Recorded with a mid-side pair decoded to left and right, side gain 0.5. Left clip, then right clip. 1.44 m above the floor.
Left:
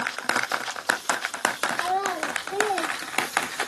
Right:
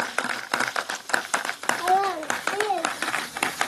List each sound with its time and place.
1.8 s a child speaking: 30° right, 0.8 m; by 3.7 s 35° right, 1.8 m